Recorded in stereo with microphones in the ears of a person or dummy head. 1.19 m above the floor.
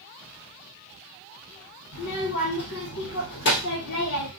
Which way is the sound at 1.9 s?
70° left (ahead or behind).